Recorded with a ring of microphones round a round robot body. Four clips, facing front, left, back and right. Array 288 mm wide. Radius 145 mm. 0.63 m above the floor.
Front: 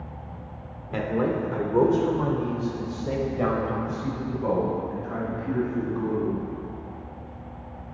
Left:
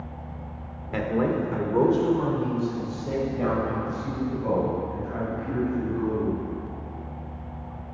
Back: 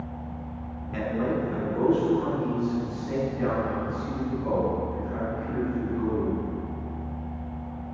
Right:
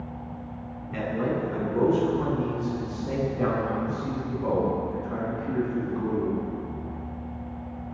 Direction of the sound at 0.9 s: 55° left.